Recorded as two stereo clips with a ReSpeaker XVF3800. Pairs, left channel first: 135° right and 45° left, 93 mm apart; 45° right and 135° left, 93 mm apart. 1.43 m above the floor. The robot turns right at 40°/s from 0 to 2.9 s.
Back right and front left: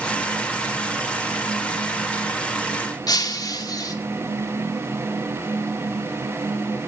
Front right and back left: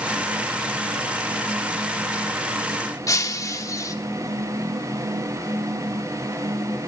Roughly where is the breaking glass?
Right.